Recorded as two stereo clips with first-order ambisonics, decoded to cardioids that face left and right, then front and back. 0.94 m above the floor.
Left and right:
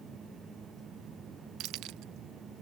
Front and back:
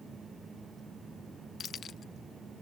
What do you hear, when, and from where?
1.6 s keys jangling: 60° right; by 2.6 s 65° right